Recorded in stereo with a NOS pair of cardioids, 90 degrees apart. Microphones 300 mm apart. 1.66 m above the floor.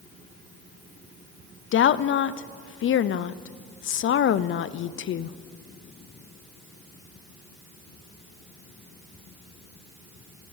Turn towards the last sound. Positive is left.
turn(degrees=45)